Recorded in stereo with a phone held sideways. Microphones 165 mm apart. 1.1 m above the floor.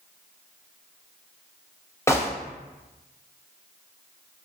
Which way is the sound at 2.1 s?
15° left (ahead or behind).